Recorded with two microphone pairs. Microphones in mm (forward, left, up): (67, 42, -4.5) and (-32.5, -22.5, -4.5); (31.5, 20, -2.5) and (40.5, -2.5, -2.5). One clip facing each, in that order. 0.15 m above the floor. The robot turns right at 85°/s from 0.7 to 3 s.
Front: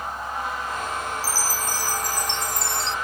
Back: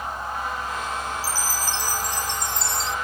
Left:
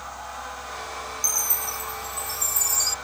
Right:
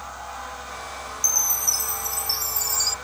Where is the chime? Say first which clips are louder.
Even, right 5 dB; 125° right; by 3.0 s 20° left.